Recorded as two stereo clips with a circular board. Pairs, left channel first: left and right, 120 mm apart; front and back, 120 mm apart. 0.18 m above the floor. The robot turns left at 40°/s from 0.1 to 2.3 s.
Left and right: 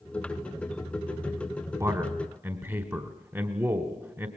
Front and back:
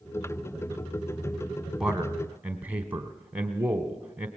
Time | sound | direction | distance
1.8 | a man speaking | 100° right | 1.1 m